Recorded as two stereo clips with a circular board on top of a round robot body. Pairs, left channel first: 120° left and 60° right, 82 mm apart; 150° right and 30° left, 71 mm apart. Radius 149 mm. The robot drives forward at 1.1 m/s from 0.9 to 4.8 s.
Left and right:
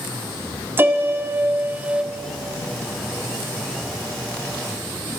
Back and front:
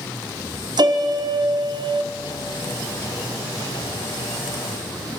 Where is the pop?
No pop in this recording.